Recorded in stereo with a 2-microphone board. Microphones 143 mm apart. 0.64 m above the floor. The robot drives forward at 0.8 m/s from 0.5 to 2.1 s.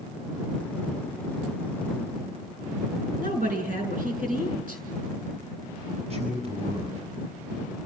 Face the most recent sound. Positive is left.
turn(degrees=-45)  # may be behind; listen again after turning